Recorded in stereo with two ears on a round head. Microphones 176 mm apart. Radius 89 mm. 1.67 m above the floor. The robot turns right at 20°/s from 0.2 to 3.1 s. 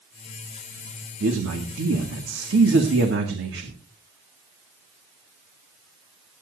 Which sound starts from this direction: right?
A man speaking, at 1.2 s.